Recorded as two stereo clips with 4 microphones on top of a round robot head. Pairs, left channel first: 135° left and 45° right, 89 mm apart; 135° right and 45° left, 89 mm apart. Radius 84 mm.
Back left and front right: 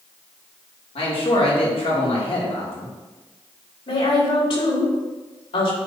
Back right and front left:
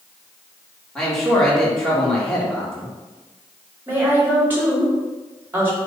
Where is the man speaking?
140° left, 3 m.